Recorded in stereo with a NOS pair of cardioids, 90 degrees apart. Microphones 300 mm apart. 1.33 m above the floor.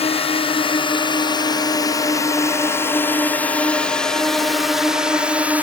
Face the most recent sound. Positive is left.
turn(degrees=-5)